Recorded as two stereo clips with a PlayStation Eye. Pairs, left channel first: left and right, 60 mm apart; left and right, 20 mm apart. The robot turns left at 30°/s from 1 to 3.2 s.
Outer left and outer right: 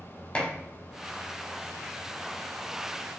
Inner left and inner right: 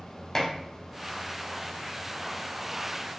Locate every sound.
0.3 s dishes clattering: 20° left (ahead or behind), 0.6 m